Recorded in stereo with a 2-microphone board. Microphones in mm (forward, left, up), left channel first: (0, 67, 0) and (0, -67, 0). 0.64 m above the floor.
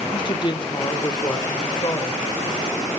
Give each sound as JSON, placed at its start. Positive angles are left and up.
{"t": 0.1, "sound": "a woman speaking", "side_deg": 35, "distance_m": 1.0}